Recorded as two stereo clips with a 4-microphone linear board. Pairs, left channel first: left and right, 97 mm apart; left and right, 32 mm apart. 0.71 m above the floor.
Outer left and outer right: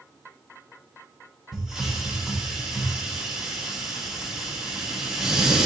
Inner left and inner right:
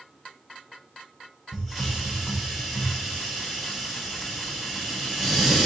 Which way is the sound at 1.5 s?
5° right (ahead or behind).